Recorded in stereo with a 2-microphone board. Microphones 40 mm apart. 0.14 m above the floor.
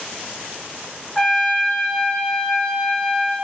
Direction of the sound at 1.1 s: Centre (ahead or behind).